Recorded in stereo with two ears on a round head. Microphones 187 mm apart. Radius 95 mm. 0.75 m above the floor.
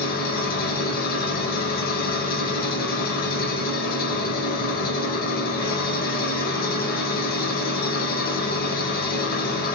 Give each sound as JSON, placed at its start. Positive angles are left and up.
{"t": 0.0, "sound": "an engine running", "side_deg": 45, "distance_m": 0.8}